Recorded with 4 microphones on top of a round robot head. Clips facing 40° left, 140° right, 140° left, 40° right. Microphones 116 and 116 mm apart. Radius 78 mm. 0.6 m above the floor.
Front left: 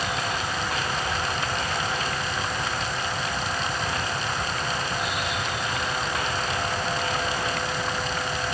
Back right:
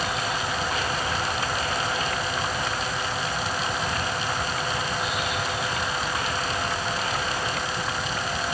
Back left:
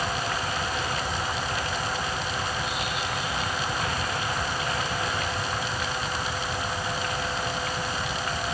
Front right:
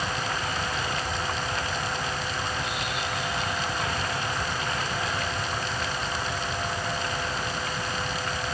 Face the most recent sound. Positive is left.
No sound to turn to.